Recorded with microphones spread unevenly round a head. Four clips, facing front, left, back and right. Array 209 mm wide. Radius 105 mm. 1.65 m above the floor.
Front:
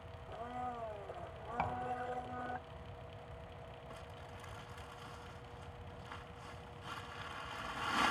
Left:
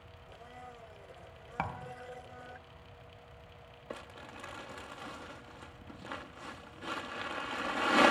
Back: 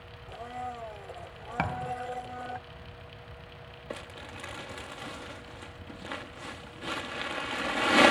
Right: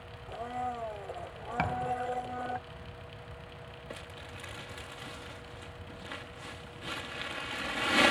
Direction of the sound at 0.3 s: 95° right.